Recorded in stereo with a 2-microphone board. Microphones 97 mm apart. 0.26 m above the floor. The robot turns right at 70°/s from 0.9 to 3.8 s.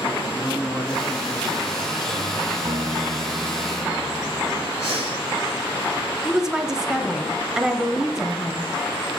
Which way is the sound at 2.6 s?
80° right.